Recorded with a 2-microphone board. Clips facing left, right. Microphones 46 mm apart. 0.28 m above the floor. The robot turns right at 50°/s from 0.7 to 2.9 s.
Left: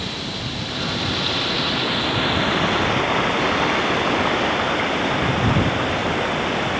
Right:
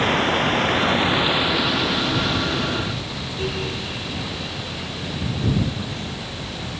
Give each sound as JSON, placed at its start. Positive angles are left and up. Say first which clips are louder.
{"t": 0.0, "sound": "running water", "louder": "right 10 dB", "azimuth_deg": -55}